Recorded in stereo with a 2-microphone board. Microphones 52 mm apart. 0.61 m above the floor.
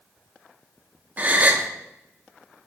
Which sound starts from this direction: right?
A gasp, at 1.2 s.